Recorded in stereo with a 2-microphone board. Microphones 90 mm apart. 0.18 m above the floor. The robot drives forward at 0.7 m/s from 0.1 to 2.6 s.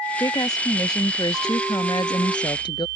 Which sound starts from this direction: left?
A woman speaking, at 0.2 s.